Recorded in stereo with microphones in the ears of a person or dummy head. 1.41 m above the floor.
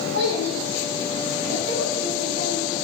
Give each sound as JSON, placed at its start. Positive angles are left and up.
{"t": 0.1, "sound": "a child speaking", "side_deg": -80, "distance_m": 8.5}